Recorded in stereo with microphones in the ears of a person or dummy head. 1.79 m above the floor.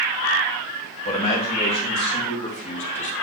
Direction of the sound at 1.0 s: 35° left (ahead or behind).